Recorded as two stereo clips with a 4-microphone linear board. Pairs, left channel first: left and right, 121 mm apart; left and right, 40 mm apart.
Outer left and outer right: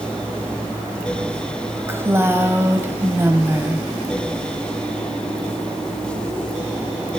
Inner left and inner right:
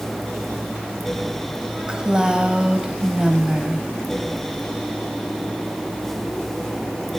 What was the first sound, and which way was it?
A woman speaking, 20° right (ahead or behind).